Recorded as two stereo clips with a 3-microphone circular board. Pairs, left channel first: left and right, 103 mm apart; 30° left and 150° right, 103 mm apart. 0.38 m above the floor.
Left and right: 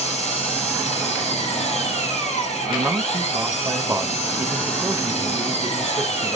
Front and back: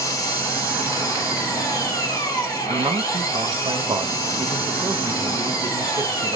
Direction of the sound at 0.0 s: 90° left.